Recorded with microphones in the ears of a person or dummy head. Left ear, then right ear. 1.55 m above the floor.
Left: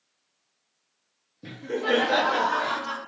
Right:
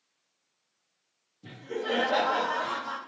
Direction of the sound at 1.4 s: 60° left (ahead or behind).